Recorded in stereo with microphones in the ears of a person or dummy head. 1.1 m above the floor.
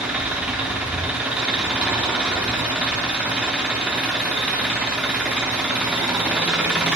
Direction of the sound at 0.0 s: 10° right (ahead or behind).